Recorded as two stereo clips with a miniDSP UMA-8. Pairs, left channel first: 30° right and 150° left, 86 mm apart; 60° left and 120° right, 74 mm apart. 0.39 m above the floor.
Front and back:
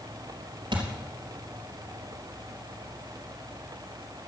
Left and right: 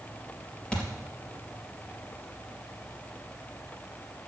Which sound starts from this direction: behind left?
A thud, at 0.7 s.